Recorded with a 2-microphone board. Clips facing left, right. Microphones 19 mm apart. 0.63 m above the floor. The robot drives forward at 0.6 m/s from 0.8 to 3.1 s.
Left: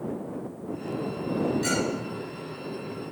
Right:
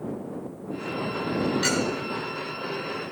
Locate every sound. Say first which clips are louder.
1.6 s a clink: right 2 dB; 40° right (ahead or behind), 2.5 m; by 1.8 s 45° right (ahead or behind), 2 m